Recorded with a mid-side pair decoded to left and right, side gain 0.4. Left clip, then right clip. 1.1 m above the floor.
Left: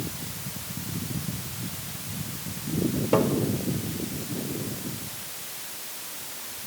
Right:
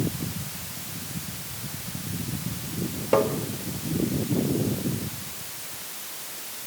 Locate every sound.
3.1 s tapping: 15° right, 2.5 m